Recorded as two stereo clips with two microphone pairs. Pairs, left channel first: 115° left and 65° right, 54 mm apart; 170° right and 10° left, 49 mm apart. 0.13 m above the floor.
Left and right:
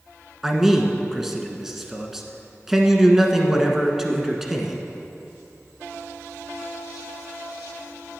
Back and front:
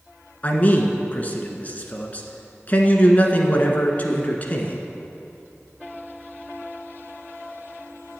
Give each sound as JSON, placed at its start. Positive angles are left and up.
{"t": 0.4, "sound": "a man speaking", "azimuth_deg": -140, "distance_m": 1.3}